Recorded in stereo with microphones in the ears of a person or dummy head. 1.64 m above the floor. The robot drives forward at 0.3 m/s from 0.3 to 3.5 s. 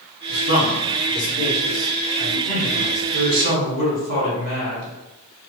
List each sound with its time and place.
0.3 s a man speaking: 45° right (ahead or behind), 1.9 m; by 3.0 s 35° right (ahead or behind), 2.5 m
3.1 s a man speaking: 80° right, 1.8 m; by 5.0 s 75° right (ahead or behind), 1.8 m